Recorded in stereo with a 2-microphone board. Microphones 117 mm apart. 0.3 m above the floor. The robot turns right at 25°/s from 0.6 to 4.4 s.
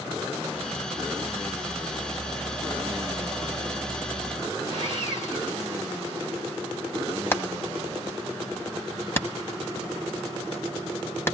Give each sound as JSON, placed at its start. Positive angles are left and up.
{"t": 4.7, "sound": "sawing", "side_deg": 75, "distance_m": 5.5}
{"t": 7.3, "sound": "hammering", "side_deg": 20, "distance_m": 1.4}